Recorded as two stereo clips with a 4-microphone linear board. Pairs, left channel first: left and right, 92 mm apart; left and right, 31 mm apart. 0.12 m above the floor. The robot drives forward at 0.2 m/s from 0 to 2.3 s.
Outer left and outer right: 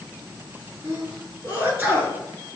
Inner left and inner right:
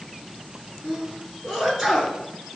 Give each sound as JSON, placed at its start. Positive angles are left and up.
{"t": 0.8, "sound": "a sneeze", "side_deg": -25, "distance_m": 1.3}